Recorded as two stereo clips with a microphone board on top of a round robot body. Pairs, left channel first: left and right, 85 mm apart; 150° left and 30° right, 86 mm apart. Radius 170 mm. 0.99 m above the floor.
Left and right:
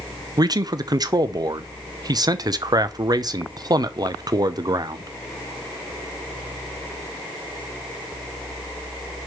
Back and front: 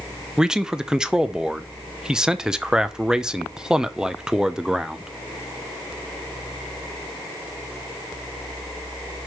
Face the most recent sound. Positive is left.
turn(degrees=-110)